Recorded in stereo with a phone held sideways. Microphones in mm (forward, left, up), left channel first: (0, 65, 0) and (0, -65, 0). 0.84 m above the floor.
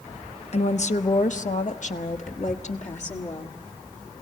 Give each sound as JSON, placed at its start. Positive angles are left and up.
{"t": 0.5, "sound": "a woman speaking", "side_deg": 50, "distance_m": 0.9}